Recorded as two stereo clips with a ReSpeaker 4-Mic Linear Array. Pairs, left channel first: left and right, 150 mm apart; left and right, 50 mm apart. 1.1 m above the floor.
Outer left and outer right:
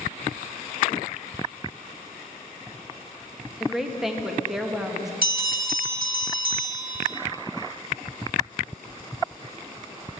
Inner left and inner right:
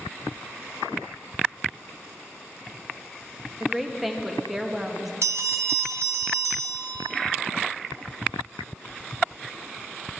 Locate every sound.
3.6 s a woman speaking: 5° right (ahead or behind), 1.4 m
5.2 s a bell: 70° right (ahead or behind), 1.8 m